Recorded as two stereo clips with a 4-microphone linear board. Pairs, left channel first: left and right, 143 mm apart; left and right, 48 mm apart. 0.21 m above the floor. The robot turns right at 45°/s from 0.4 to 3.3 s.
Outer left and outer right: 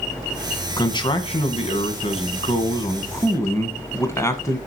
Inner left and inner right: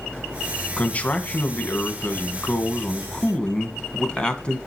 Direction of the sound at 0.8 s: 40° left.